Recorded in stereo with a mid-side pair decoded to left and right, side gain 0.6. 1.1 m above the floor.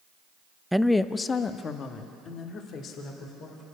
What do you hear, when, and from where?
0.7 s a woman speaking: 5° right, 0.6 m; by 3.6 s 55° left, 3.5 m